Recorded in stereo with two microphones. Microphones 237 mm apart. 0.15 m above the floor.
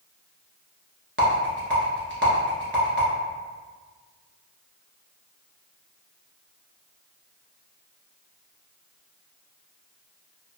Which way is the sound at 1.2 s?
50° right (ahead or behind).